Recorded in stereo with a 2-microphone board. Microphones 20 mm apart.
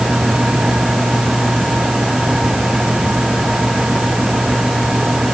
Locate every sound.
Only background noise.